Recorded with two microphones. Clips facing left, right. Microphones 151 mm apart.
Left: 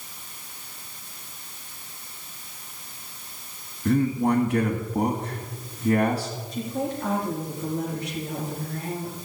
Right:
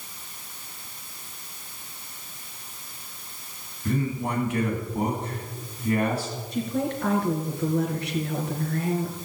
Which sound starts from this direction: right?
A woman speaking, at 6.5 s.